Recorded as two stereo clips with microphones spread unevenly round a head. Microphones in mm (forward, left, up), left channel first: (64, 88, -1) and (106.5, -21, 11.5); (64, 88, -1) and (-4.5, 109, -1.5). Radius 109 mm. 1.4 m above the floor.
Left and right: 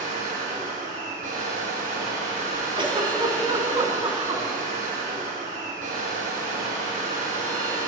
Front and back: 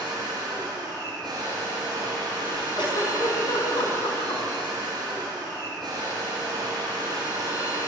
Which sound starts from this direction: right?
A machine running, at 0.0 s.